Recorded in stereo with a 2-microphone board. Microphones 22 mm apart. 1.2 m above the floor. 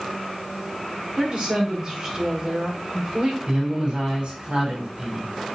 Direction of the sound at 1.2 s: 45° right (ahead or behind).